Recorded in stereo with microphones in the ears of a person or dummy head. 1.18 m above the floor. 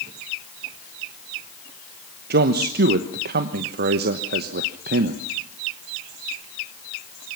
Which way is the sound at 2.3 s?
50° right (ahead or behind).